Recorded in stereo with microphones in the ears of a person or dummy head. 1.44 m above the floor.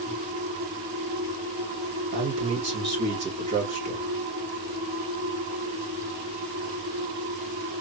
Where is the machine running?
60° right (ahead or behind), 2.5 m.